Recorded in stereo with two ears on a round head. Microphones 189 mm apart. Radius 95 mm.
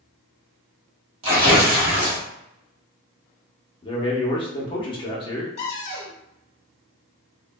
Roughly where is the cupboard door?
Left.